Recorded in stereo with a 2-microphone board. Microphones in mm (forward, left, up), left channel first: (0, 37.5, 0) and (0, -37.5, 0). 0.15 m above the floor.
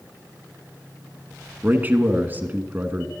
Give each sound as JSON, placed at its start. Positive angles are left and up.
{"t": 1.6, "sound": "a man speaking", "side_deg": -25, "distance_m": 1.3}